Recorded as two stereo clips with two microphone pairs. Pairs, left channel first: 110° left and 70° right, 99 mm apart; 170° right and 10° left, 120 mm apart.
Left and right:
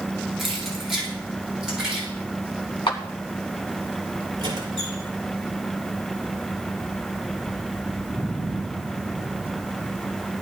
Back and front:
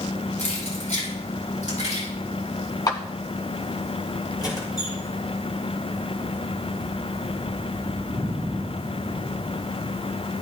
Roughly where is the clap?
Behind left.